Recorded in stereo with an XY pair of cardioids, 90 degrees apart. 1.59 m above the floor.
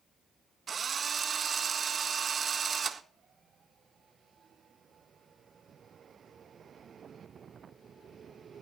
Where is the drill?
50° right, 1.6 m.